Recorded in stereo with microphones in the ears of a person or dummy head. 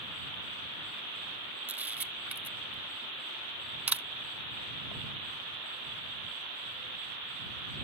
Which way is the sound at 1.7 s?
5° right (ahead or behind).